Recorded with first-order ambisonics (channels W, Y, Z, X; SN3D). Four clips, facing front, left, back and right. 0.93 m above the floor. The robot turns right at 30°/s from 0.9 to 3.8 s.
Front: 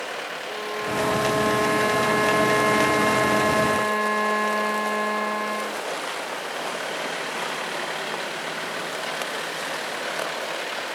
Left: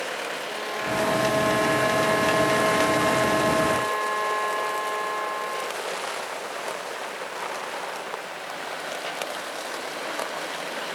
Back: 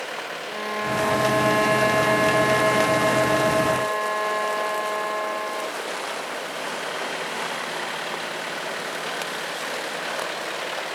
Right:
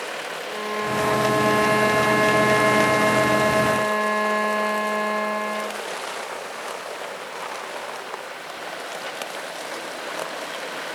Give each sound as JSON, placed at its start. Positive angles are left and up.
{"t": 0.5, "sound": "a violin", "azimuth_deg": -125, "distance_m": 0.7}